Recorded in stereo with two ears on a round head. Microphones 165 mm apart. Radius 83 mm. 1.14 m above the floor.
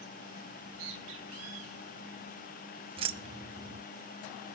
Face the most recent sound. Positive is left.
turn(degrees=-30)  # may be behind; listen again after turning